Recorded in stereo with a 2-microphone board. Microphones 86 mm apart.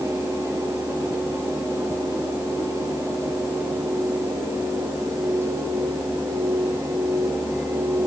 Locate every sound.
Only background noise.